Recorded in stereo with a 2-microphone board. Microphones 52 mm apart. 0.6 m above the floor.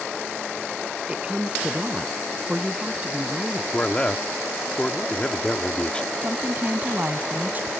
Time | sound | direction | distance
1.1 | a woman speaking | 20° right (ahead or behind) | ?
3.7 | a man speaking | 25° left (ahead or behind) | ?
6.2 | a woman speaking | 35° right (ahead or behind) | ?